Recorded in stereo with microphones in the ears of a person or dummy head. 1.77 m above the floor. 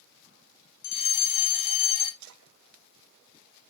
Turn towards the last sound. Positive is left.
turn(degrees=-80)